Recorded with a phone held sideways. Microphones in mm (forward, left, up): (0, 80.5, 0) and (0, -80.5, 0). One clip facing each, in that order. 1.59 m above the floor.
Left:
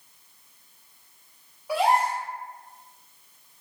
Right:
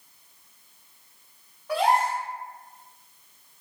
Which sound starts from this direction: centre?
A gasp, at 1.7 s.